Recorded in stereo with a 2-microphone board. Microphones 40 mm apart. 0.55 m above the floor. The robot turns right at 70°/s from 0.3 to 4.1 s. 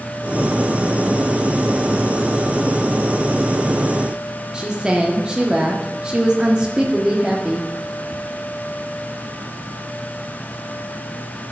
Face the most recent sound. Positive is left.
turn(degrees=-20)  # may be behind; listen again after turning